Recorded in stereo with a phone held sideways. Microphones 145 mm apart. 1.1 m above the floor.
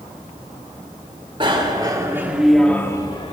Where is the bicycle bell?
35° right (ahead or behind), 2.5 m; by 3.3 s 40° left (ahead or behind), 1.8 m.